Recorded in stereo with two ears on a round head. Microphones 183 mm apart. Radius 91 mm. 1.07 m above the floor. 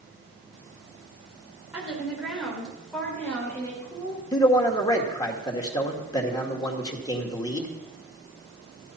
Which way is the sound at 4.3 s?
20° left (ahead or behind).